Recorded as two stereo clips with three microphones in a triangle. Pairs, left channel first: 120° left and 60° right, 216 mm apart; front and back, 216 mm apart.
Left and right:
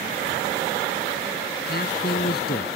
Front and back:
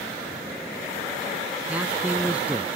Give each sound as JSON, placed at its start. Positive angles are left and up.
{"t": 1.7, "sound": "a man speaking", "azimuth_deg": 100}